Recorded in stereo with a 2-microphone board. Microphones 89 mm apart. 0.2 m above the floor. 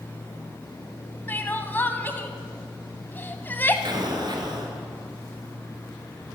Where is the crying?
20° left (ahead or behind), 0.7 m.